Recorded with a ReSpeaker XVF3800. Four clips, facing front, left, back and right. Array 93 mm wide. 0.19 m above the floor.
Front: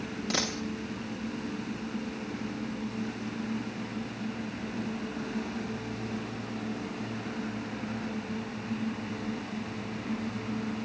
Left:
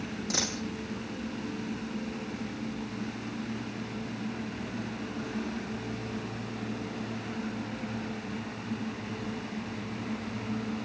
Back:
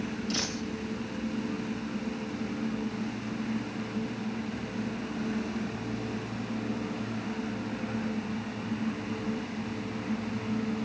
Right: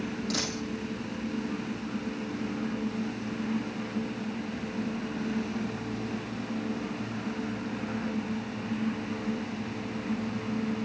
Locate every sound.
0.3 s a dropped coin: 20° left, 6 m